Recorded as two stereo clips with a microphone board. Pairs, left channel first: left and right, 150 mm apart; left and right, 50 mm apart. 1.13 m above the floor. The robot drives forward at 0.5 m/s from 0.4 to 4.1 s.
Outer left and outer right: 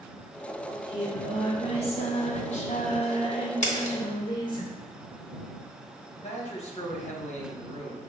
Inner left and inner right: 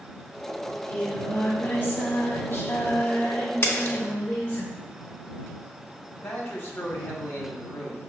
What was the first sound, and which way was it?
Singing, 25° left (ahead or behind).